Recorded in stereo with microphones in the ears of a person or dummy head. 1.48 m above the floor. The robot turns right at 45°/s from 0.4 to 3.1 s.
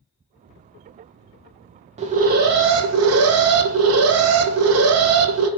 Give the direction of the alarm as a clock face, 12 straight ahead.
5 o'clock.